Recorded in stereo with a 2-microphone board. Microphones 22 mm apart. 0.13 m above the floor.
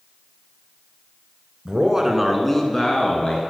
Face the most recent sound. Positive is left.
turn(degrees=40)  # may be behind; listen again after turning